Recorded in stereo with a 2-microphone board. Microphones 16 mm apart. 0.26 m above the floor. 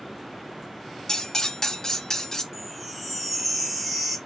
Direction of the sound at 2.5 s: Centre (ahead or behind).